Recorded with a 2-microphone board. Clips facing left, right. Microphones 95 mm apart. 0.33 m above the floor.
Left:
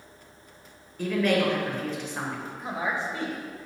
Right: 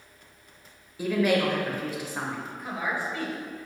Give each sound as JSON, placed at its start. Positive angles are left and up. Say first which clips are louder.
{"t": 1.0, "sound": "a woman speaking", "louder": "even", "side_deg": -10, "distance_m": 1.1}
{"t": 2.6, "sound": "a woman speaking", "louder": "left 2 dB", "side_deg": 25, "distance_m": 1.4}